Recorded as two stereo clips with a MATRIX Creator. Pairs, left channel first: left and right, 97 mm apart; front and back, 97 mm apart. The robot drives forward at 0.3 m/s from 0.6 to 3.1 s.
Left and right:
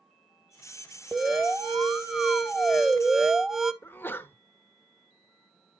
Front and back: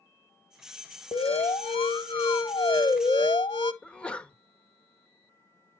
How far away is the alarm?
About 1.3 m.